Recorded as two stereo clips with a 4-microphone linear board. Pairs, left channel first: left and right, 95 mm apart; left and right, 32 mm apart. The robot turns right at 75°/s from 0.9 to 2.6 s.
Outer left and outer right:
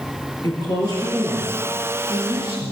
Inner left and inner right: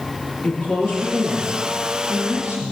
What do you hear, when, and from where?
0.4 s a woman speaking: 140° left, 5 m; by 2.7 s 95° right, 5 m